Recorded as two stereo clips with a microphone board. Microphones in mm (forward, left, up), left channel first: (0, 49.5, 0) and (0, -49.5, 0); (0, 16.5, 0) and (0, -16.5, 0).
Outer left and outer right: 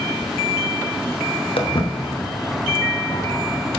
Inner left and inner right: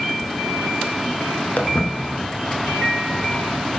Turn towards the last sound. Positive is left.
turn(degrees=55)  # may be behind; listen again after turning